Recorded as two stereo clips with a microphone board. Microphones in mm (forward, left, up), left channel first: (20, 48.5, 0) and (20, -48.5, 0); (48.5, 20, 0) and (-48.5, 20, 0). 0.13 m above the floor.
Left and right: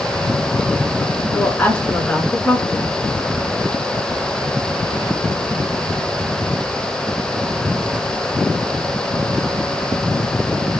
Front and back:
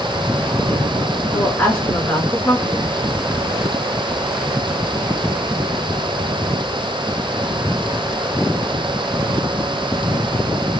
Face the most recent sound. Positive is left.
turn(degrees=40)